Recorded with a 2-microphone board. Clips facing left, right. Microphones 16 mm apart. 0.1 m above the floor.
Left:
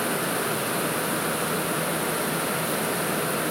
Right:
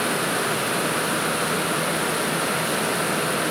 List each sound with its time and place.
Only background noise.